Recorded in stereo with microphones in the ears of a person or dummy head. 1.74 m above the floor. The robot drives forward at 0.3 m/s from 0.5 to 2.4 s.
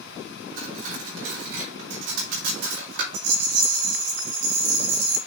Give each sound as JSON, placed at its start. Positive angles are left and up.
{"t": 0.6, "sound": "cutlery clinking", "side_deg": -75, "distance_m": 3.5}
{"t": 3.1, "sound": "a rattle", "side_deg": -80, "distance_m": 4.5}